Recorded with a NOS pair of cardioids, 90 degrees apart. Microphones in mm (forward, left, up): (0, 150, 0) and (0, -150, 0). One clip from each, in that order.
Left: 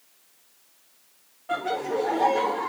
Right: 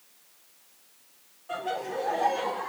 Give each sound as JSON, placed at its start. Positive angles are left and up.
{"t": 1.5, "sound": "laughter", "azimuth_deg": 60, "distance_m": 2.0}